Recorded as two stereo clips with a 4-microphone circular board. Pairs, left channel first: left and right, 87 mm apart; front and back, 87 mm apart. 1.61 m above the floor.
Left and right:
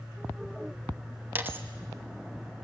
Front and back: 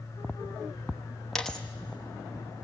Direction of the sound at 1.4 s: 80° right.